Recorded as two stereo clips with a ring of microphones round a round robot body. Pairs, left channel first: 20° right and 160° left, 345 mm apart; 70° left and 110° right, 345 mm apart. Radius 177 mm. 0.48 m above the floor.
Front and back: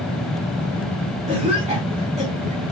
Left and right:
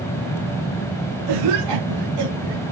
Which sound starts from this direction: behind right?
A cough, at 1.3 s.